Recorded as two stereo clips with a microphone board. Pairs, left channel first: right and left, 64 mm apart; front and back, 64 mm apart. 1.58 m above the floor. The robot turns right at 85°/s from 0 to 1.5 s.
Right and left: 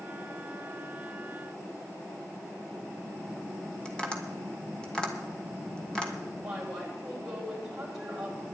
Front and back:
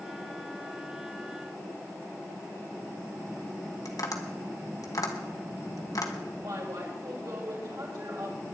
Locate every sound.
3.9 s tapping: 15° right, 2.0 m
6.3 s a woman speaking: 170° left, 6.5 m